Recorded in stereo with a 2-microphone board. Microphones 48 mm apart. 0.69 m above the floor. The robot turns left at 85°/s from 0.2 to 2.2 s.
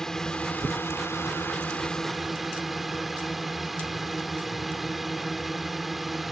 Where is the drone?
165° left; by 6.3 s 5° right.